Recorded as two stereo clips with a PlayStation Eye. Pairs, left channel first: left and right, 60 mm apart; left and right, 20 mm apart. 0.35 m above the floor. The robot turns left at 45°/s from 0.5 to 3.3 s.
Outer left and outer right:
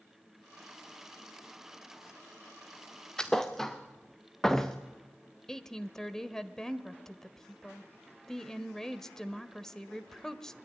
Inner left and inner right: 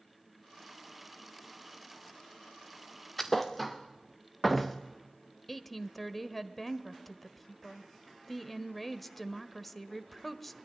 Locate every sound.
3.2 s a thud: 15° left (ahead or behind), 2 m; by 4.8 s 10° left (ahead or behind), 2 m
5.5 s a woman speaking: 10° left (ahead or behind), 1.3 m